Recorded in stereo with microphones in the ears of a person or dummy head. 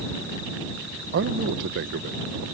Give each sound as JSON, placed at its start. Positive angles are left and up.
{"t": 1.1, "sound": "a man speaking", "side_deg": -60}